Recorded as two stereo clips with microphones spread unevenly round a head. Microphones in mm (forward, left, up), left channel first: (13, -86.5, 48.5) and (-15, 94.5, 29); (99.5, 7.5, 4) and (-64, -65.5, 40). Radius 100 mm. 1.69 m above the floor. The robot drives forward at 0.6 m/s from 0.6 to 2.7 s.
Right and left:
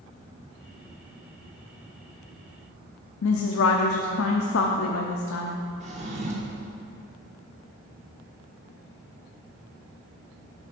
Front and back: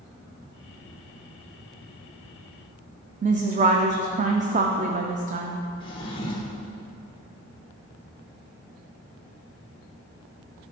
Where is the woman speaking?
105° right, 0.5 m.